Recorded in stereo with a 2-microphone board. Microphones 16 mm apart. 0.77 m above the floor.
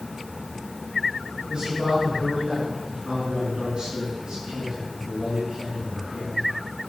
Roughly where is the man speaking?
Right.